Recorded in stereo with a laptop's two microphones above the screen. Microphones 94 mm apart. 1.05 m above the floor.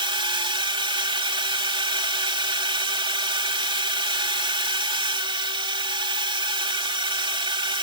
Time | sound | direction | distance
0.0 | a drone | 60° right (ahead or behind) | ?